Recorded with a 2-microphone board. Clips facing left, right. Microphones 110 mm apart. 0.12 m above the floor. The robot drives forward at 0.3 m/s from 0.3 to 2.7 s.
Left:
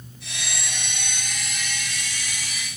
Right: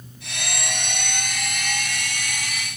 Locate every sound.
Only background noise.